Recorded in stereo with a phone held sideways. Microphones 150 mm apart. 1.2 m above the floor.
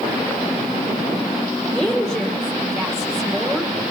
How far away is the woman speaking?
About 2.5 m.